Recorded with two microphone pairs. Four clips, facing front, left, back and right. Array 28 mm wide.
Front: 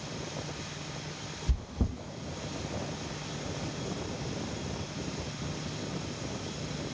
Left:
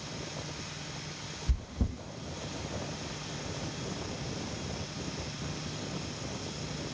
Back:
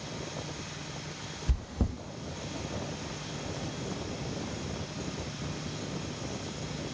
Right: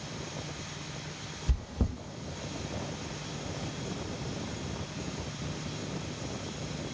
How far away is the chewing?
About 0.7 m.